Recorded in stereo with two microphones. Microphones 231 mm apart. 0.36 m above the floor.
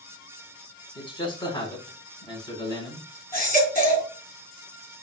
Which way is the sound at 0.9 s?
20° left (ahead or behind).